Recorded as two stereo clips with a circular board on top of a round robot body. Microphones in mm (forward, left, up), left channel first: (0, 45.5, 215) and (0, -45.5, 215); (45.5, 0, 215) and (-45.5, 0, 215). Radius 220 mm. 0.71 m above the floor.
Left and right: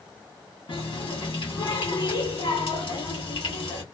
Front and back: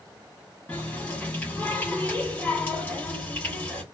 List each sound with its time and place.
0.7 s a running tap: 75° left, 1.9 m